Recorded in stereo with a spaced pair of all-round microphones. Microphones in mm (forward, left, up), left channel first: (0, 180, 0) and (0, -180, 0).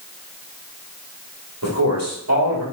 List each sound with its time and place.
1.6 s a man speaking: 50° right (ahead or behind), 2 m